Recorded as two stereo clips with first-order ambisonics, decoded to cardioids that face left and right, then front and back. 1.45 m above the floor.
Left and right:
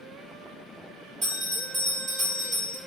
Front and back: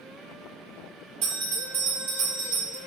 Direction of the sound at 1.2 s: 165° right.